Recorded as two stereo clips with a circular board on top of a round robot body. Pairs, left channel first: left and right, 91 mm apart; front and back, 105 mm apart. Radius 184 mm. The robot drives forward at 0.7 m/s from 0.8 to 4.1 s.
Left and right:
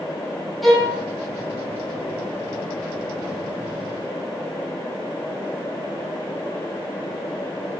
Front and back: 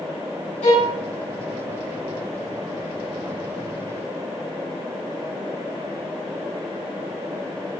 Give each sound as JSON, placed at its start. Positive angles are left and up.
{"t": 0.6, "sound": "a violin", "azimuth_deg": 0, "distance_m": 5.0}